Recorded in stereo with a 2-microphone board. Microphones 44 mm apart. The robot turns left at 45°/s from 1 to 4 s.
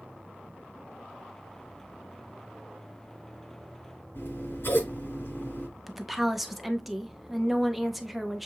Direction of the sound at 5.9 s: 5° right (ahead or behind).